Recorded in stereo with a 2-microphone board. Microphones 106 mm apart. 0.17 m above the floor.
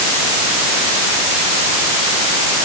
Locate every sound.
Only background noise.